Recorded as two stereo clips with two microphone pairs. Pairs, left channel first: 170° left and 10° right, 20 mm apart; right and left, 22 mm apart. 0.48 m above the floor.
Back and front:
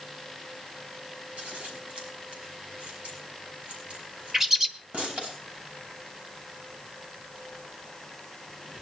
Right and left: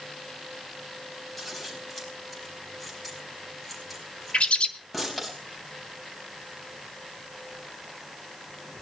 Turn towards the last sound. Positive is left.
turn(degrees=-70)